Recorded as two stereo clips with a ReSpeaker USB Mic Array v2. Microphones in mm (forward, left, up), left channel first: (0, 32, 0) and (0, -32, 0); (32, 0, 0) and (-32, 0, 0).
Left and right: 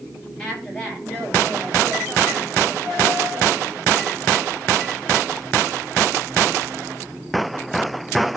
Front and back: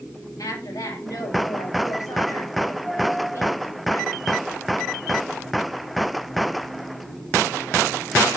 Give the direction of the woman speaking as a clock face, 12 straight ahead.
12 o'clock.